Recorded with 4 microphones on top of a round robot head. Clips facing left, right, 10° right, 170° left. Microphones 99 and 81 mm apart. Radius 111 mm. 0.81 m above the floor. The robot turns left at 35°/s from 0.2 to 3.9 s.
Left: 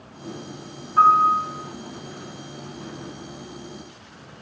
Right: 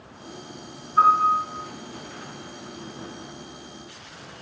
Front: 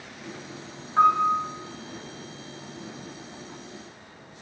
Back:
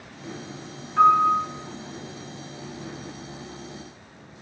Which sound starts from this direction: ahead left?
A piano, at 1.0 s.